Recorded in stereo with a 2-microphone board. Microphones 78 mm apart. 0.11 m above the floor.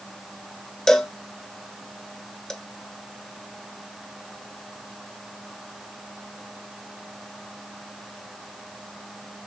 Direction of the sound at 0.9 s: 10° left (ahead or behind).